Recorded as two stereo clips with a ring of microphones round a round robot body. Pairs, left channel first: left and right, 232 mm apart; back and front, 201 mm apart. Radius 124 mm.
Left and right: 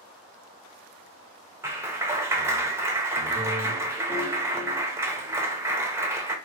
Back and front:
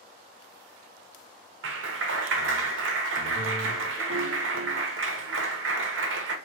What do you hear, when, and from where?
1.6 s a clap: 10° right, 0.6 m